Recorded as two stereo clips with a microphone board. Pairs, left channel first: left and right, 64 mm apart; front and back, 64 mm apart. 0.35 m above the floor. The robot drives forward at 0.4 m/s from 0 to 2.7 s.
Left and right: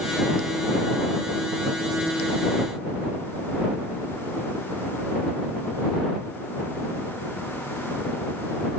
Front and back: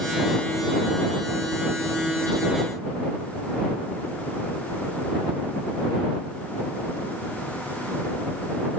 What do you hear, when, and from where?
Only background noise.